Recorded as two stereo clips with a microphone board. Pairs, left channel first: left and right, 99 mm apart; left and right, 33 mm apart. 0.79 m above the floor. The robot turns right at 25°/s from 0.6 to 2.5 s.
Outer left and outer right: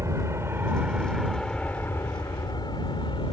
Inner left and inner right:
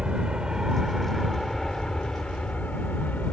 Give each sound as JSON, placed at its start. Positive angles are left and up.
{"t": 0.0, "sound": "an aircraft", "side_deg": -30}